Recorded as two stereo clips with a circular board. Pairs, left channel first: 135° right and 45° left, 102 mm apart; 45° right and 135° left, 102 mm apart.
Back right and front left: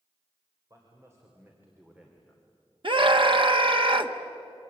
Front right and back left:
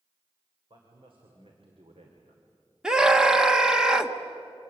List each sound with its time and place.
0.7 s a man speaking: 100° left, 4 m; by 2.4 s 140° left, 2.5 m
2.8 s a scream: 55° left, 1.4 m